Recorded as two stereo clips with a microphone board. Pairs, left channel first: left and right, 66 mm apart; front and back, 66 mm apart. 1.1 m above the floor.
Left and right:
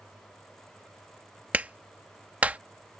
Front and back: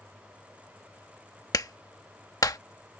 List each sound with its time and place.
1.5 s a clap: 25° right